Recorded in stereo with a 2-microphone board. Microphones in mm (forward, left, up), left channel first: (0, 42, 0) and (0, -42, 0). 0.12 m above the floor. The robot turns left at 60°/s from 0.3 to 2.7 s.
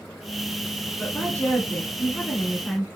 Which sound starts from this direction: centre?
A woman speaking, at 1.0 s.